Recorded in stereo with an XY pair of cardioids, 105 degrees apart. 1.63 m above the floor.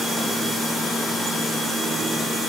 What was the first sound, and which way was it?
Only background noise.